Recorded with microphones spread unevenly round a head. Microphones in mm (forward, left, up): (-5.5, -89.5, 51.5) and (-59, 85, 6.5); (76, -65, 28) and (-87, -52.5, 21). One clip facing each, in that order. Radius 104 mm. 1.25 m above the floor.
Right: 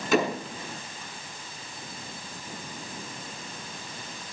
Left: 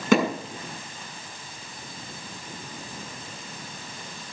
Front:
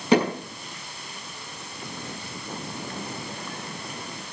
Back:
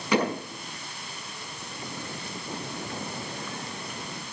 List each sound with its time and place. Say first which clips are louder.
0.1 s hammering: left 3 dB, front 5 dB; 65° left, 6.5 m